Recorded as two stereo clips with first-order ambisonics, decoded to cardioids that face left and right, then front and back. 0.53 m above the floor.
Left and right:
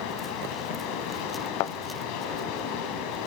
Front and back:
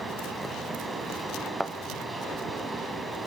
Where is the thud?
95° left, 0.7 m.